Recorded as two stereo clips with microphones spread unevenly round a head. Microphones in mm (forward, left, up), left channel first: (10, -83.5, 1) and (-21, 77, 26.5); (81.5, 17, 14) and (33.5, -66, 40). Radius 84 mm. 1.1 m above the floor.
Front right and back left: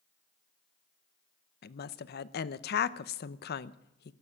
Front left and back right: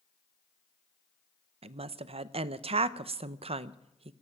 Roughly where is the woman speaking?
Right.